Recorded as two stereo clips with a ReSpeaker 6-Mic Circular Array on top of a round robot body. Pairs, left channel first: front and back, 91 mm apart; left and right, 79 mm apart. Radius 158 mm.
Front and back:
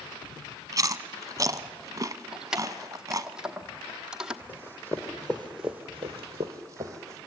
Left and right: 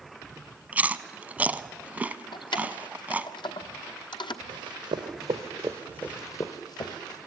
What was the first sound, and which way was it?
Chewing, 150° right.